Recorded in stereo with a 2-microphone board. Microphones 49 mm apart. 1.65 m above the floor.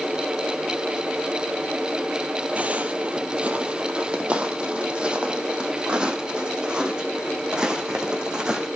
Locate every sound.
2.6 s footsteps: 30° right (ahead or behind), 3 m; by 8.7 s 15° right (ahead or behind), 6.5 m